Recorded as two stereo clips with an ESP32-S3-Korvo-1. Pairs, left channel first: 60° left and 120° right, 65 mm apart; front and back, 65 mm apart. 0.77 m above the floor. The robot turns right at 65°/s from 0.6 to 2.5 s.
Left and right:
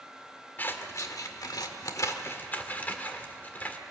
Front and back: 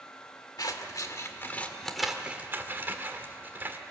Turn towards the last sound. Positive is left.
turn(degrees=125)